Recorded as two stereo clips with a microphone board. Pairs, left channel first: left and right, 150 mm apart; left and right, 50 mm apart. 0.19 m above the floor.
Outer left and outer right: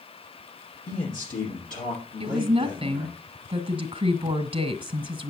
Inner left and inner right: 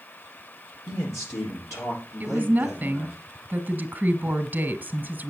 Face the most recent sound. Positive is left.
turn(degrees=-35)  # may be behind; listen again after turning